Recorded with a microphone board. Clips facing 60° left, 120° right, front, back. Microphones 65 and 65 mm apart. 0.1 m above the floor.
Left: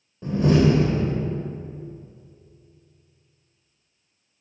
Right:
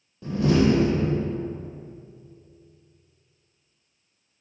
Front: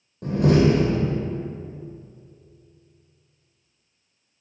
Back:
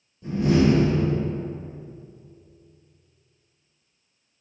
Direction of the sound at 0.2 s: 20° right.